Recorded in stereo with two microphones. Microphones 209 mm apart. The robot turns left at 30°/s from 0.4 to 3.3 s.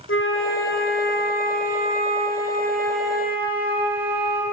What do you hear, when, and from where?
0.1 s a flute: 80° left, 5 m; by 4.4 s 10° right, 5 m